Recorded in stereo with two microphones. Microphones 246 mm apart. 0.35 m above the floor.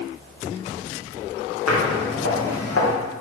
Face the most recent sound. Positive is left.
turn(degrees=70)  # may be behind; listen again after turning